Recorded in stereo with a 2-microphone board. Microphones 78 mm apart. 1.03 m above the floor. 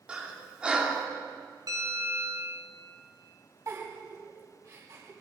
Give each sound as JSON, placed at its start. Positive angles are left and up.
{"t": 0.1, "sound": "breathing", "side_deg": -15, "distance_m": 3.0}
{"t": 1.7, "sound": "a bell", "side_deg": -50, "distance_m": 6.0}
{"t": 3.7, "sound": "a giggle", "side_deg": -50, "distance_m": 5.0}